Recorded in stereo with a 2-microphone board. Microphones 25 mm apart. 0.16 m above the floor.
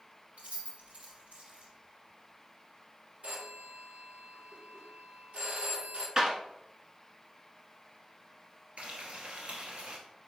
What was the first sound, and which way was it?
Keys jangling, 65° right (ahead or behind).